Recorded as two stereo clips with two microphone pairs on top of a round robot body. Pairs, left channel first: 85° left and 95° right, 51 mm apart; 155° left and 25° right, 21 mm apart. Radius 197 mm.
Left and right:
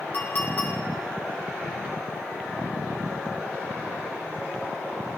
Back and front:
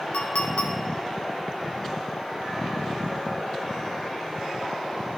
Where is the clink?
140° left, 0.6 m.